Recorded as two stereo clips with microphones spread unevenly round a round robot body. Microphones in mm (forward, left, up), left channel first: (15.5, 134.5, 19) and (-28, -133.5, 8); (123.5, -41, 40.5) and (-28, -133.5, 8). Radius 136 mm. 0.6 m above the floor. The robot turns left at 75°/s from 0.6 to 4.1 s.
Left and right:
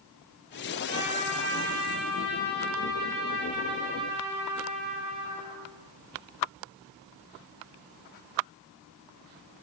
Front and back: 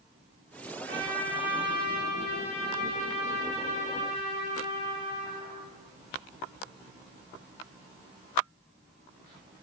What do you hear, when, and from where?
0.9 s a trumpet: 150° right, 4.5 m; by 5.6 s 35° right, 4.5 m